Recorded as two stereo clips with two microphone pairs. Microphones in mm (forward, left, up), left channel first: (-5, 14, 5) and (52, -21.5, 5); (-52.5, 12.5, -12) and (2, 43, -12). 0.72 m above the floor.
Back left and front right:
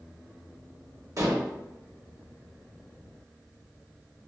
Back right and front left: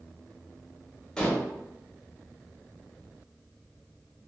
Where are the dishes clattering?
75° right, 0.6 m.